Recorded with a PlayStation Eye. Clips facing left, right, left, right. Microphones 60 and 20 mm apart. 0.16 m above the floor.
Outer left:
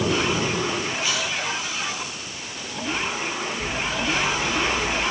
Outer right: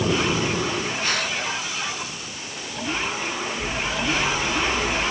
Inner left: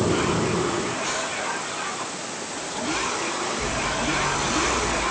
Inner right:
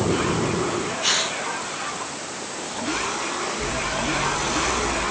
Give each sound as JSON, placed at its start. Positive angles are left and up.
{"t": 1.0, "sound": "a hiss", "side_deg": -50}